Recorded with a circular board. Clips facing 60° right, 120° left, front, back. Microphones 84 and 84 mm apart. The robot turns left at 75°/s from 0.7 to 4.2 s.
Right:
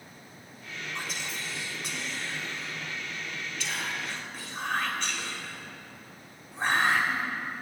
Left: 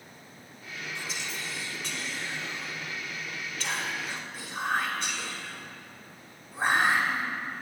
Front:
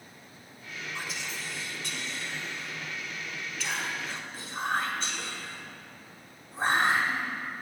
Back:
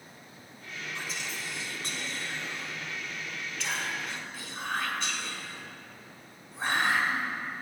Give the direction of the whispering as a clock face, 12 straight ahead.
2 o'clock.